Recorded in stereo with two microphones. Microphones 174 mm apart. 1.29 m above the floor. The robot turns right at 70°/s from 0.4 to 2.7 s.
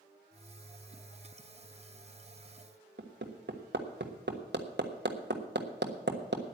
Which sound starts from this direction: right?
Hammering, at 3.0 s.